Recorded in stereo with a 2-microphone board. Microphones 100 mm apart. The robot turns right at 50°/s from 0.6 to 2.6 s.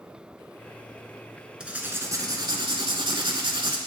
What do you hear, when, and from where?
1.6 s writing: 170° right, 0.7 m; by 3.8 s 120° right, 0.7 m